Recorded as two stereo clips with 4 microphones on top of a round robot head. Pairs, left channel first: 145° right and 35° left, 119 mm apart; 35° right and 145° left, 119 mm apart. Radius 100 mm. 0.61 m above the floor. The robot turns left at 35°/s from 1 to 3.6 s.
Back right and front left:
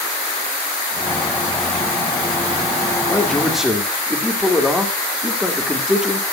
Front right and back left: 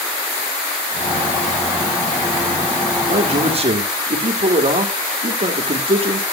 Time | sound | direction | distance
3.1 | a man speaking | 140° left | 2.5 m